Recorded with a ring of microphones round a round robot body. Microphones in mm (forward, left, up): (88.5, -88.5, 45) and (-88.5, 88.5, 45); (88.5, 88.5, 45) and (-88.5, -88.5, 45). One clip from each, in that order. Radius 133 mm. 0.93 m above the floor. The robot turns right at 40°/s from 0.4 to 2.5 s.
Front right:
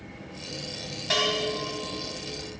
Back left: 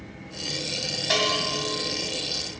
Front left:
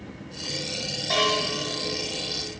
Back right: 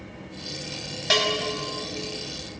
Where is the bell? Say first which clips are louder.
Back left 1 dB, back right 1 dB; 145° right, 2.5 m; by 1.4 s 130° right, 2.5 m.